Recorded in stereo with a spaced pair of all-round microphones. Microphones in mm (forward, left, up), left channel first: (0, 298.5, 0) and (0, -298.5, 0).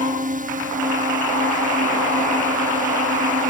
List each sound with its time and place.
0.0 s a drone: 15° right (ahead or behind)